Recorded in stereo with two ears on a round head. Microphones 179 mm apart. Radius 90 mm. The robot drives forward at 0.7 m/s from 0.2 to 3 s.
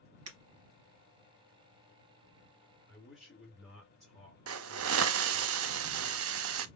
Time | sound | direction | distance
0.3 | breaking glass | 80° right | 3 m
2.9 | a man speaking | centre (ahead or behind) | 3 m
4.5 | a hiss | 80° right | 0.5 m